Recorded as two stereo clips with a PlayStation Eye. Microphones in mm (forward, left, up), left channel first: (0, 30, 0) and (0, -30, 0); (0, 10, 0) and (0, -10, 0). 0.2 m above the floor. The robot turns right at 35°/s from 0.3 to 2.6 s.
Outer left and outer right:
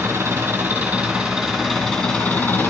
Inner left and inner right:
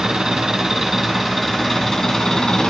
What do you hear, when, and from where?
0.0 s an engine running: 40° right, 2.5 m; by 2.7 s 40° left, 2.5 m